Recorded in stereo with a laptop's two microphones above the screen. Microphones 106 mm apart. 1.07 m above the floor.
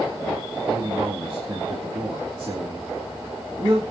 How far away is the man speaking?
About 2 m.